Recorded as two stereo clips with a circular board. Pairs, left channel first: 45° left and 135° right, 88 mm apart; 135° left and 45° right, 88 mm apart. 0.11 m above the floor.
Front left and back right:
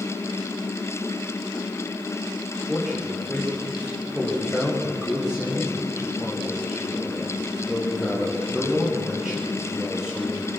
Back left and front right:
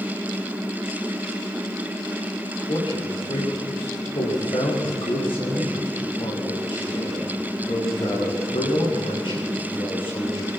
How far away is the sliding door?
No sliding door in this recording.